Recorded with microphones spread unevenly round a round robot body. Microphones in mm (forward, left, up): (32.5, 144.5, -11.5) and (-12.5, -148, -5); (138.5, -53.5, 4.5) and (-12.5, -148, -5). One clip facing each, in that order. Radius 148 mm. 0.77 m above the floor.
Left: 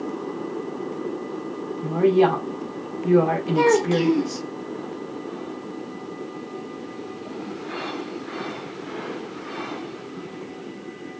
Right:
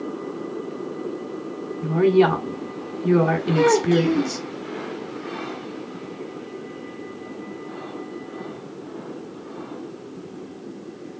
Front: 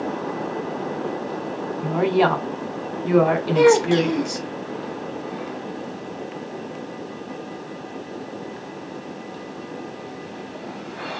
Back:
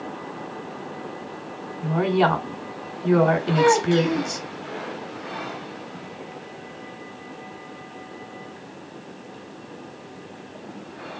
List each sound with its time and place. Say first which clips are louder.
1.8 s a woman speaking: right 1 dB, front 2 dB; 50° right, 1.6 m
3.5 s a child speaking: right 1 dB, front 5 dB; straight ahead, 1.3 m